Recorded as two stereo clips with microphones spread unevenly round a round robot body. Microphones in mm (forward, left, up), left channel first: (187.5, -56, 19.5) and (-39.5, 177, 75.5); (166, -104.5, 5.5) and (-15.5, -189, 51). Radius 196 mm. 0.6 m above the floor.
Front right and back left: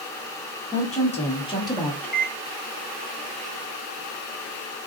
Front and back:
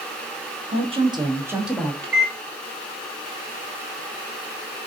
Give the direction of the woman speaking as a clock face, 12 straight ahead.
3 o'clock.